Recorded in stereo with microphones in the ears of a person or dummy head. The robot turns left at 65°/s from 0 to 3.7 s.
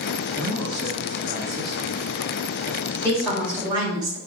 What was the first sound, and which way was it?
A man speaking, 60° right.